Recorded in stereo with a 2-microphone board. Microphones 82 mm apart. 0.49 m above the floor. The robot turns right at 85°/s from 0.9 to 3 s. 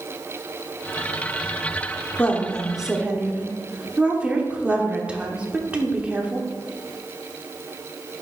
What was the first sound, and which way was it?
A woman speaking, 135° left.